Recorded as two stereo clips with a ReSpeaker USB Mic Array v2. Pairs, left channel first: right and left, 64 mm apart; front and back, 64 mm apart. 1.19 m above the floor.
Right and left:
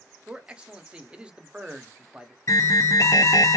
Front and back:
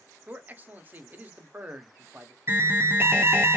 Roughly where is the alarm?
Behind right.